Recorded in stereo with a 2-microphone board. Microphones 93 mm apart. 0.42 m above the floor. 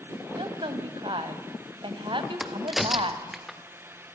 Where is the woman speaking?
65° right (ahead or behind), 2.5 m.